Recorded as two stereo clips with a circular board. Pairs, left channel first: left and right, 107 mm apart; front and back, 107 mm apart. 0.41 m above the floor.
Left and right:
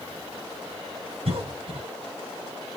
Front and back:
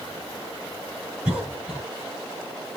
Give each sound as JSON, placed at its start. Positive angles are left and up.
{"t": 1.2, "sound": "a cough", "azimuth_deg": -100, "distance_m": 3.0}